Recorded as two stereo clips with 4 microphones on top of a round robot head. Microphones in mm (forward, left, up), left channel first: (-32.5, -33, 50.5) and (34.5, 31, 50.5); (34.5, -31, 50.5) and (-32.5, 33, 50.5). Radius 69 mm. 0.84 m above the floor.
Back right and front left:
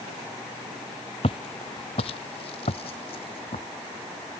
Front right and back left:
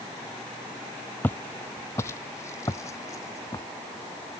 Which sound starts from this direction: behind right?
Footsteps, at 1.2 s.